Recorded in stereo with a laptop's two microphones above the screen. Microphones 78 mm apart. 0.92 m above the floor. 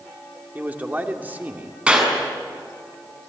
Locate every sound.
0.6 s a man speaking: 20° right (ahead or behind), 2.5 m
1.9 s a clap: 15° right (ahead or behind), 7 m